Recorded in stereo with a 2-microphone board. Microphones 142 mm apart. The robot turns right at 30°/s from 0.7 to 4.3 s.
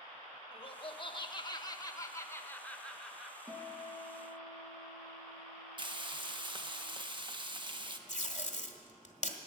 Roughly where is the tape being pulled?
Left.